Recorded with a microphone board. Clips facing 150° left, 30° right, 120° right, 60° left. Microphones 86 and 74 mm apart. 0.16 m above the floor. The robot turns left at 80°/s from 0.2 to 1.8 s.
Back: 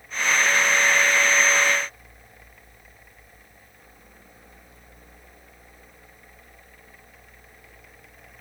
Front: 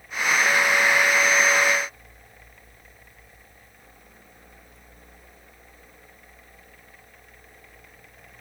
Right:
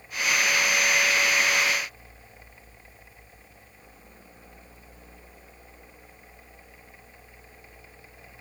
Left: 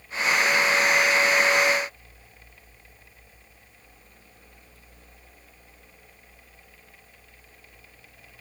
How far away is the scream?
No scream in this recording.